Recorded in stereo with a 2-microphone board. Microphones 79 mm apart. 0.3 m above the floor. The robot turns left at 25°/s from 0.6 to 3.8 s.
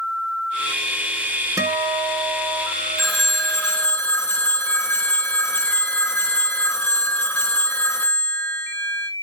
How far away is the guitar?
About 0.8 m.